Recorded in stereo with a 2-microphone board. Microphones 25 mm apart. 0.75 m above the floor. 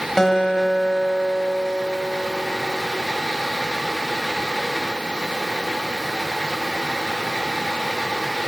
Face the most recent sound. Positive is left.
turn(degrees=15)  # may be behind; listen again after turning